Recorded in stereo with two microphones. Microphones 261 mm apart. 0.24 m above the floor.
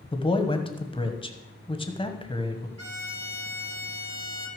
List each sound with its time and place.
0.1 s a man speaking: 20° left (ahead or behind), 1.2 m
2.8 s a violin: 75° right (ahead or behind), 2 m